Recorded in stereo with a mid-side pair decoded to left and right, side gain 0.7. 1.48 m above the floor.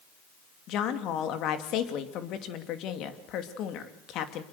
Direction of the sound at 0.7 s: 55° left.